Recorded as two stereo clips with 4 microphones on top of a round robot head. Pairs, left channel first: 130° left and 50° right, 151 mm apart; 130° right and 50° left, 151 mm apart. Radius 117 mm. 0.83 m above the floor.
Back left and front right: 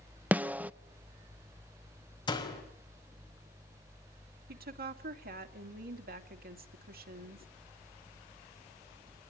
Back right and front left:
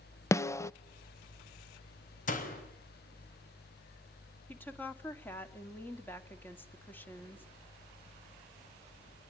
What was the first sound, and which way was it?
A snare drum, 105° right.